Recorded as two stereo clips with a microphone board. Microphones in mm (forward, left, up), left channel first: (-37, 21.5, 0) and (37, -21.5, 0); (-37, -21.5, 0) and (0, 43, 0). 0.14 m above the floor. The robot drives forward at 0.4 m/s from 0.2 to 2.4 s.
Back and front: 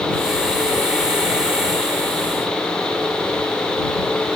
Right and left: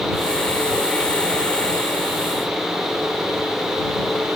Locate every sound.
Only background noise.